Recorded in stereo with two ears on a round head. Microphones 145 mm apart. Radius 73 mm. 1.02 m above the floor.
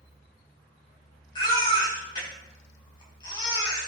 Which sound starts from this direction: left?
A baby crying, at 1.4 s.